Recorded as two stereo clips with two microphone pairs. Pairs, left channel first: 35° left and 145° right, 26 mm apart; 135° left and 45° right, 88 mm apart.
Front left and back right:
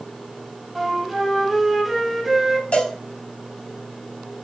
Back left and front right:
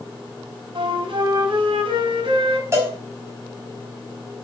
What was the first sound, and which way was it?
A flute, 55° right.